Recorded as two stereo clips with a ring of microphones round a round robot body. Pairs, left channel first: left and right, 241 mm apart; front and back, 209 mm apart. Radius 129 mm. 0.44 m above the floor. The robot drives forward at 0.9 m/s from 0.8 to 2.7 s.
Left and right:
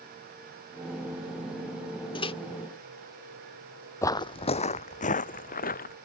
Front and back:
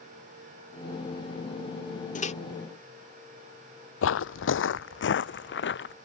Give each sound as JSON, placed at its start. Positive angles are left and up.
{"t": 2.1, "sound": "a microwave", "azimuth_deg": 30}
{"t": 4.0, "sound": "footsteps", "azimuth_deg": 10}